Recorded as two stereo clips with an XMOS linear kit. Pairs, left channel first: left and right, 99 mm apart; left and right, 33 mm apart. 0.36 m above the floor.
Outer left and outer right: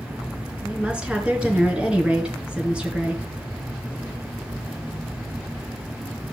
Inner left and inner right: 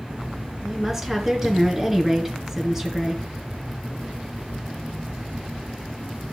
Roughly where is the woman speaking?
Centre.